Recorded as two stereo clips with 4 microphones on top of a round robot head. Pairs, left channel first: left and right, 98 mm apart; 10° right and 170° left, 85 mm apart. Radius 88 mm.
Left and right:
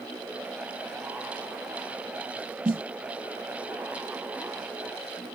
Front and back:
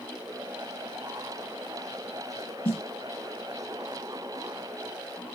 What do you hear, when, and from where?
2.6 s a snare drum: 25° right, 2 m